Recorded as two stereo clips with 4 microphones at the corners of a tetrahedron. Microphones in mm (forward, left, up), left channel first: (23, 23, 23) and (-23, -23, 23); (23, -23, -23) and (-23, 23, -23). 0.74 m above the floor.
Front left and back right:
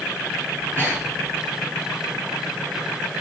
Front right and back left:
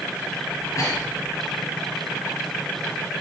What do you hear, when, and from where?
0.5 s breathing: 80° right, 3.5 m